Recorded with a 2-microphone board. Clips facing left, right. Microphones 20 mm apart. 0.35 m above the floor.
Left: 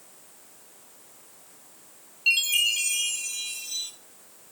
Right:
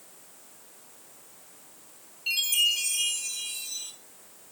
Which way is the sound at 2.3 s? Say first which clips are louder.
Left 3 dB; 45° left (ahead or behind).